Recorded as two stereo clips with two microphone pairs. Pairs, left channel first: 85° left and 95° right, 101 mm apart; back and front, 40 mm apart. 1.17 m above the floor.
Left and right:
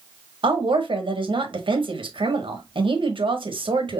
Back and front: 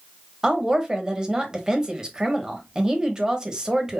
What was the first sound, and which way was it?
A woman speaking, 65° right.